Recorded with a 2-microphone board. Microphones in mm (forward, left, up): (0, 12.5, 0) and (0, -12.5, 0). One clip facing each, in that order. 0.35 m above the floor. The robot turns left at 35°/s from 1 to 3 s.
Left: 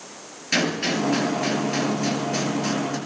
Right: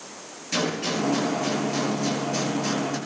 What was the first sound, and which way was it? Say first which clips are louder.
A gunshot: left 3 dB; 75° left.